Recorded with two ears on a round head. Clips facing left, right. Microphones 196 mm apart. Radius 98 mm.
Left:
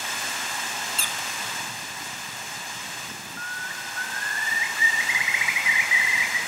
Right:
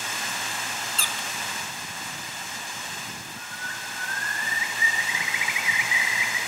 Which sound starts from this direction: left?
A bird, at 3.4 s.